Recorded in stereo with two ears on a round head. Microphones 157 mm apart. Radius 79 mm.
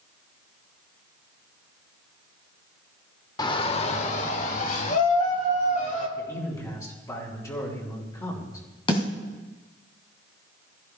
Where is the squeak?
No squeak in this recording.